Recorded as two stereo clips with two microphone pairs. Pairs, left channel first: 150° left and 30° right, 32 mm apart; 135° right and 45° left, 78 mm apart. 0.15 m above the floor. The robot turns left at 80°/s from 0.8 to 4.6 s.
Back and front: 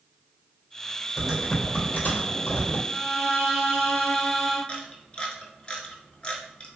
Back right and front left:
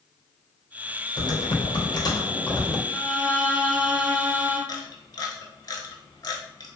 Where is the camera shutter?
160° right, 0.6 m.